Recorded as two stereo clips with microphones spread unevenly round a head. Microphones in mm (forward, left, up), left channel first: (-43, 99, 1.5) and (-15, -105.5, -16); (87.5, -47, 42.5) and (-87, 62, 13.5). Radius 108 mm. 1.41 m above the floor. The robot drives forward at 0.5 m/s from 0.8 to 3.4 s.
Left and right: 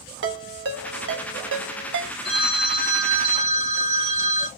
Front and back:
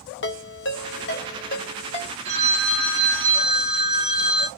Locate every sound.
0.2 s a ringtone: 50° right, 1.1 m; by 2.1 s 90° right, 0.9 m
2.2 s a phone ringing: 145° right, 1.9 m; by 4.5 s 155° right, 2.5 m